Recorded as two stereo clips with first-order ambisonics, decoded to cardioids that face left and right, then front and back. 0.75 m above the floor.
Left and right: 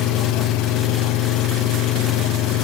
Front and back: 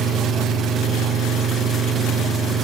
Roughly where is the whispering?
I don't hear whispering.